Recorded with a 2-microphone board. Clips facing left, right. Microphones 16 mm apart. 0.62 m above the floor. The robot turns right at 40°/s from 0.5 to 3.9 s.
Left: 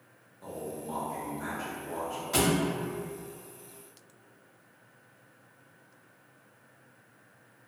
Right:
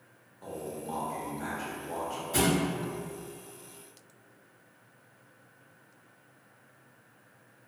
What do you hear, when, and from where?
0.4 s a man speaking: 15° right (ahead or behind), 0.9 m
2.3 s a thud: 75° left (ahead or behind), 0.8 m; by 2.6 s 70° left (ahead or behind), 0.8 m